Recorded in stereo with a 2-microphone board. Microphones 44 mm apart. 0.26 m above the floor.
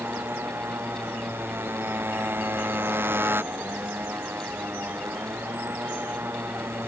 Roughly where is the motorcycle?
Right.